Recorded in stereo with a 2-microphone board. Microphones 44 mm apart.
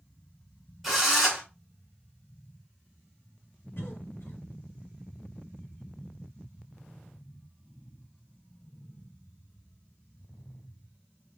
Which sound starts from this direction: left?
A cough, at 3.8 s.